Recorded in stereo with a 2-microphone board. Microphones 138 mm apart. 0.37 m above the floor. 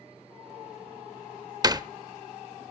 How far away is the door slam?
About 0.8 m.